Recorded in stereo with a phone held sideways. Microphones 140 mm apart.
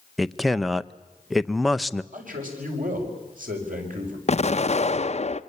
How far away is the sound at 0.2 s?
About 0.6 m.